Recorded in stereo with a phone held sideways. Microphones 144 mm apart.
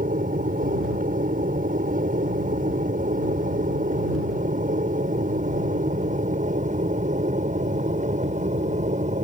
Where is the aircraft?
75° right (ahead or behind); by 9.2 s 60° right (ahead or behind).